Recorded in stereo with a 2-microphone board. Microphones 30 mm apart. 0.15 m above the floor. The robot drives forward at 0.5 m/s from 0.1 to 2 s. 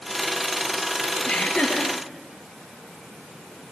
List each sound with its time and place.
1.2 s laughter: 60° left (ahead or behind), 3 m